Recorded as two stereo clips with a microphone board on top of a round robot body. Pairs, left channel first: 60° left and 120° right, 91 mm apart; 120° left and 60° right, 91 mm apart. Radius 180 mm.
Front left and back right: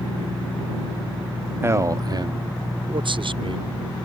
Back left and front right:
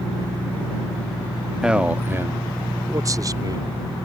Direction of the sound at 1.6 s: 135° right.